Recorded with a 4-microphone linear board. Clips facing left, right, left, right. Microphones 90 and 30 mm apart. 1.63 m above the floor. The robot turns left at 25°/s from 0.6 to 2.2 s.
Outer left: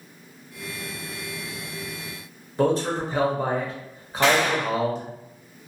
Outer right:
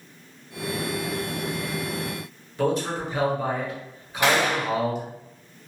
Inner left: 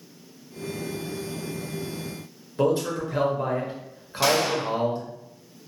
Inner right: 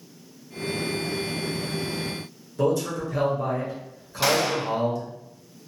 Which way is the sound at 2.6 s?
35° left (ahead or behind).